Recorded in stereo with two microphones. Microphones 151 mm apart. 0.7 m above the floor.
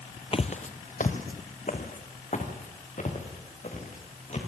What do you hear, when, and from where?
0.3 s footsteps: 40° left (ahead or behind), 0.9 m; by 4.4 s 50° left (ahead or behind), 5.5 m